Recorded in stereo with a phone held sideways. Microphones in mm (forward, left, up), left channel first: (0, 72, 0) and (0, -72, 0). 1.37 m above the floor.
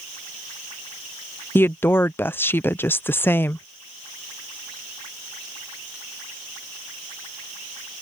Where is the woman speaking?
15° left (ahead or behind).